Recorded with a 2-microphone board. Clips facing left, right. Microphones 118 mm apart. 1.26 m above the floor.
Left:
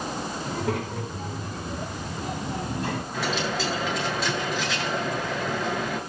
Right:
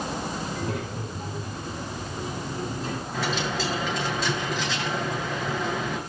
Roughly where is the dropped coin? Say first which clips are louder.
Right 1 dB; centre.